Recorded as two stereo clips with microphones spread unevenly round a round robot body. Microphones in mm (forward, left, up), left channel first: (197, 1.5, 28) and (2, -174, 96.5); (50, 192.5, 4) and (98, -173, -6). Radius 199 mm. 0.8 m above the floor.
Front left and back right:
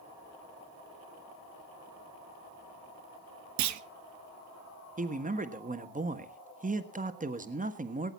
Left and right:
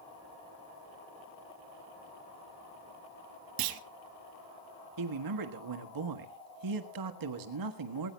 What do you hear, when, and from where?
3.6 s a clunk: 115° right, 0.9 m
5.0 s a man speaking: 70° right, 1.5 m